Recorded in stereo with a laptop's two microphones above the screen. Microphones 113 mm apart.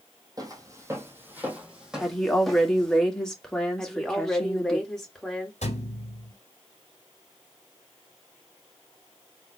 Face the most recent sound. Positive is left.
turn(degrees=75)  # may be behind; listen again after turning